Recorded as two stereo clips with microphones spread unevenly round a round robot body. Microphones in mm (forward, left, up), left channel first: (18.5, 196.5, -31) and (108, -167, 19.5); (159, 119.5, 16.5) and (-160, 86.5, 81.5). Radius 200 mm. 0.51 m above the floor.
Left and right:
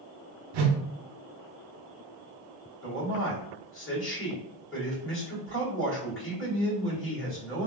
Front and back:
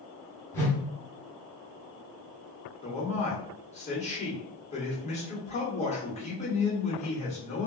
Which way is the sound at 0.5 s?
65° right.